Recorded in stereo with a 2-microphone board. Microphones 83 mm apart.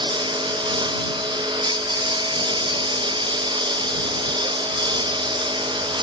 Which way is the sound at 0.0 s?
70° right (ahead or behind).